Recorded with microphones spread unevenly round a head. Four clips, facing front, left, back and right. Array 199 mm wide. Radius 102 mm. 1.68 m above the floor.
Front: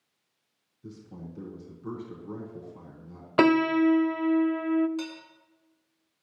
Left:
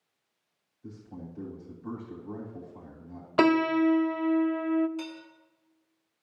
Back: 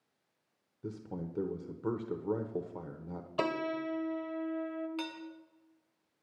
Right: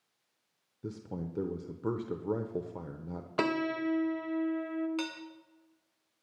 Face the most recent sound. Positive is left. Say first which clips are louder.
# right 1 dB, front 4 dB
turn(degrees=-85)